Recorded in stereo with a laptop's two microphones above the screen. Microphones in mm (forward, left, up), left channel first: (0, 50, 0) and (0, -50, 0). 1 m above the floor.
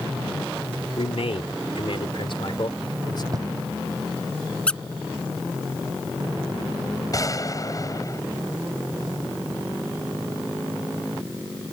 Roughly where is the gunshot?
Left.